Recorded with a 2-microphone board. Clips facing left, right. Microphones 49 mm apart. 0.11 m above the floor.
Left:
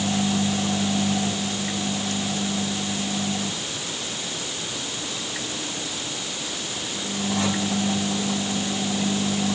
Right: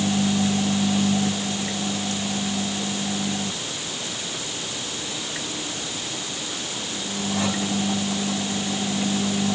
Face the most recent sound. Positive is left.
No sound to turn to.